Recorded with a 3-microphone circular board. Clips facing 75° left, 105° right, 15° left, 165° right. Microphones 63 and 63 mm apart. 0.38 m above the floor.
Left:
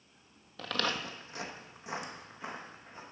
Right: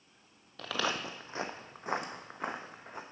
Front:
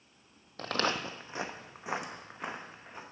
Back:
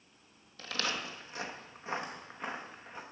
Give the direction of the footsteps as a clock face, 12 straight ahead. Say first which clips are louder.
Even, front 5 dB; 12 o'clock.